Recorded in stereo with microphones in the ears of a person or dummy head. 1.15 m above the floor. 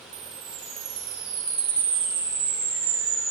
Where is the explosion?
No explosion in this recording.